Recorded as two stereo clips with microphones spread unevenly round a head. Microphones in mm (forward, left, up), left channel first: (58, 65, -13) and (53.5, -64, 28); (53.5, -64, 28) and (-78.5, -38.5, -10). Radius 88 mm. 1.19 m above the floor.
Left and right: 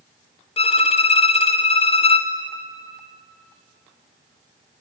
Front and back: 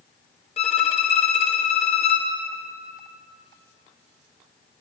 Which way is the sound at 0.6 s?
40° left.